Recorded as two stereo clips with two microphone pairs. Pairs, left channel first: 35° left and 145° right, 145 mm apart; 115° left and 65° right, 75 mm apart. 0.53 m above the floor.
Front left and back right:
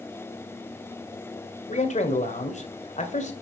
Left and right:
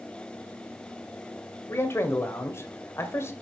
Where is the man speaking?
65° left, 1.9 m.